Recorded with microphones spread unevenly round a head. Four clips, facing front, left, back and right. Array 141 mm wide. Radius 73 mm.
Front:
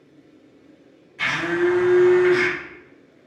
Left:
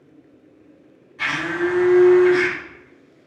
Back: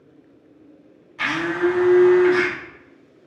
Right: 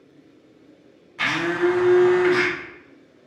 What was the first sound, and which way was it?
A blender, 110° right.